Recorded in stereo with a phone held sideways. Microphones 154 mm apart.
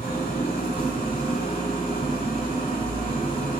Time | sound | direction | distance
0.0 | an engine running | 75° left (ahead or behind) | 2 m